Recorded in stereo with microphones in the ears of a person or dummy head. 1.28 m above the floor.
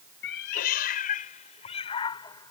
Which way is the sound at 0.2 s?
60° left (ahead or behind).